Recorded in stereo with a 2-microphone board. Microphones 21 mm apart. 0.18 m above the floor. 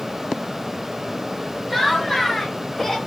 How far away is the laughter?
About 3 m.